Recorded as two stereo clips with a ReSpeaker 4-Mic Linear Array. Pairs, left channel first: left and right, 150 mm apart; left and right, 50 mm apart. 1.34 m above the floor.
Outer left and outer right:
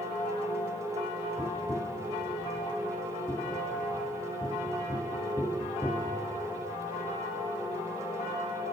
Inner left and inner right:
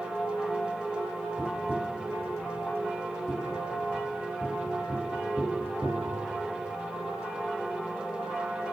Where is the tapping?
10° left (ahead or behind), 1.1 m.